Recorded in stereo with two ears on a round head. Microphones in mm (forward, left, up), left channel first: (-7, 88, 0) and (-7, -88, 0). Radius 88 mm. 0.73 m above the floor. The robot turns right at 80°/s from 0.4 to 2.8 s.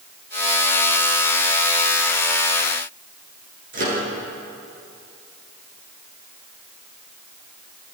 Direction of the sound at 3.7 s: 45° right (ahead or behind).